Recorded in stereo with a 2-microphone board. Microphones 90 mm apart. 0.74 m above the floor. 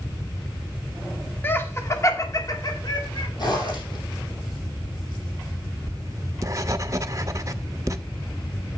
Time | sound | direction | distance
1.4 | laughter | 25° left (ahead or behind) | 1.5 m
3.4 | a zipper | 50° left (ahead or behind) | 5 m
5.9 | writing | 35° right (ahead or behind) | 0.7 m